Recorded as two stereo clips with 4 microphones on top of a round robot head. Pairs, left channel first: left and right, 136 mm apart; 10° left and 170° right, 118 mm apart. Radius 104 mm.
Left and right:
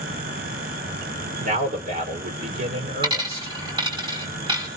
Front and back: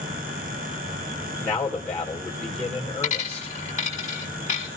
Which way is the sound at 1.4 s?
70° right.